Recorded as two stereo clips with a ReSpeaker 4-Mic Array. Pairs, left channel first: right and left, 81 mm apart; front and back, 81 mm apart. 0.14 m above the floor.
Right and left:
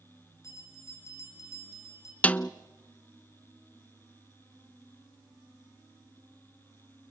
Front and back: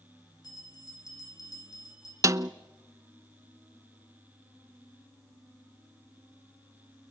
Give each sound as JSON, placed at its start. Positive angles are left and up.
{"t": 0.4, "sound": "a bell", "azimuth_deg": -40, "distance_m": 4.0}
{"t": 2.2, "sound": "a snare drum", "azimuth_deg": -155, "distance_m": 0.5}